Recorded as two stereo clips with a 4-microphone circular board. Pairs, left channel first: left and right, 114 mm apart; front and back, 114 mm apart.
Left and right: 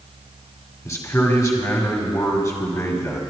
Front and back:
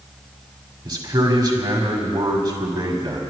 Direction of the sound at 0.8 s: 145° left.